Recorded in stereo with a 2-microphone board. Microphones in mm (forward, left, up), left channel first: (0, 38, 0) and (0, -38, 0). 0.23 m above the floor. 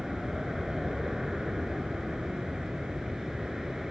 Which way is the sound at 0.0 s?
5° right (ahead or behind).